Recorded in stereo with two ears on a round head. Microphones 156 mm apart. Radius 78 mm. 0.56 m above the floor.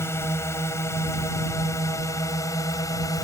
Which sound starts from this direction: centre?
A drone, at 0.0 s.